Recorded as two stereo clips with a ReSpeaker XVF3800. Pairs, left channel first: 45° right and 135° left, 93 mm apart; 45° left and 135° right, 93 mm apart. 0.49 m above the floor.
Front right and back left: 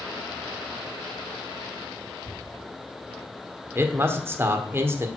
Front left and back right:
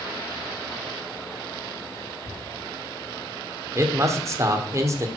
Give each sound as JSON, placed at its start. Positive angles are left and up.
{"t": 2.2, "sound": "tapping", "azimuth_deg": 45, "distance_m": 4.0}
{"t": 3.8, "sound": "a man speaking", "azimuth_deg": -175, "distance_m": 1.2}